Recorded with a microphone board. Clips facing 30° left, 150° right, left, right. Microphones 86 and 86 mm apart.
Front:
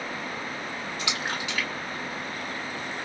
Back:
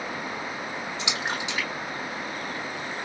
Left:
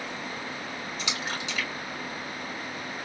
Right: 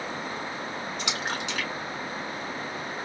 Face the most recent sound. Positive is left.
turn(degrees=-90)